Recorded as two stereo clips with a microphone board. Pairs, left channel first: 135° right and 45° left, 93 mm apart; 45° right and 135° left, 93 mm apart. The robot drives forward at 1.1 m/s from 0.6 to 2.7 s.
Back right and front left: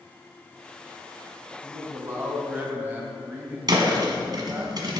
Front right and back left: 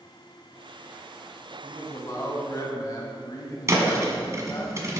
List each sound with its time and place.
1.6 s a man speaking: 10° right, 3 m; by 4.7 s 20° right, 1.9 m
3.7 s a thud: 80° left, 1.4 m